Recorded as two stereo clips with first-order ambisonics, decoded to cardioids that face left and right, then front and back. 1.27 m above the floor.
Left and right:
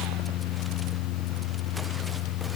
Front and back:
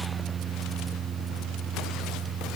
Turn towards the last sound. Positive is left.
No sound to turn to.